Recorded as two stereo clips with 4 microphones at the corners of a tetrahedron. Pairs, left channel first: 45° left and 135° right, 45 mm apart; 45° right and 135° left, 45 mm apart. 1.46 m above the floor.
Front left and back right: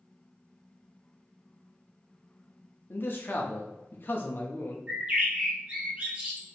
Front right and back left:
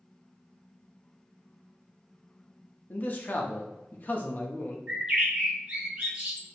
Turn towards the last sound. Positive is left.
turn(degrees=-175)